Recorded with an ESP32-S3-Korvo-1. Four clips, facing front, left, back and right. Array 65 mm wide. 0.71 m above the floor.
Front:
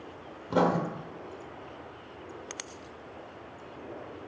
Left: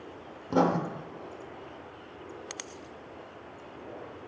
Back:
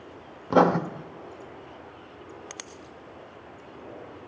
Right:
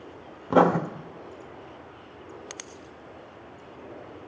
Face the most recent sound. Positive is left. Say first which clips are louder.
# right 6 dB, back 6 dB
turn(degrees=-125)